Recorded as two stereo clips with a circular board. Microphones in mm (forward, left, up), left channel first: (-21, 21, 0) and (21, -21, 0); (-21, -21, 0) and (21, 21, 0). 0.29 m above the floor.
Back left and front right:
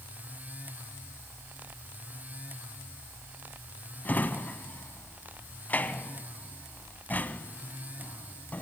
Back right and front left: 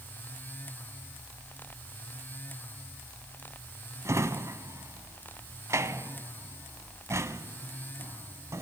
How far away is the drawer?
About 1.2 m.